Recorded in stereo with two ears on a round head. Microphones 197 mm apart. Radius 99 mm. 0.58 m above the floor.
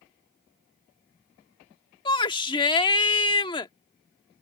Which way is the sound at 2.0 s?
20° left (ahead or behind).